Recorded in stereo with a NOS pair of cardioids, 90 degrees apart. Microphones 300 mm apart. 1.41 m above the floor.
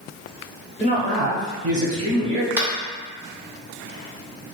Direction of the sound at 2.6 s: 5° right.